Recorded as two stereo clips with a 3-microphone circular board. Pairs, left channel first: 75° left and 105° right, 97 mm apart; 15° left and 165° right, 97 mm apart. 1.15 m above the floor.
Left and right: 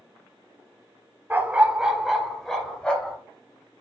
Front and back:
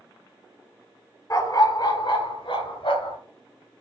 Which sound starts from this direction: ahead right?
A dog barking, at 1.3 s.